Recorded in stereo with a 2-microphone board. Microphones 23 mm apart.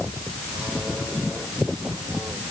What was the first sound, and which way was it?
Only background noise.